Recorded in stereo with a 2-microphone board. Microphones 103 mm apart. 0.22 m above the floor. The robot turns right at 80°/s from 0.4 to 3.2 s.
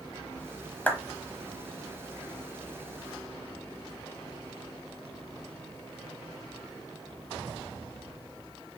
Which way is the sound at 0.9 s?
15° left (ahead or behind).